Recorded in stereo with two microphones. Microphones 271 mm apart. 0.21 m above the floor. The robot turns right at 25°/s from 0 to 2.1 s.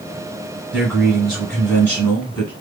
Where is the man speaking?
5° right (ahead or behind), 1.5 m; by 2.5 s 5° left (ahead or behind), 1.5 m.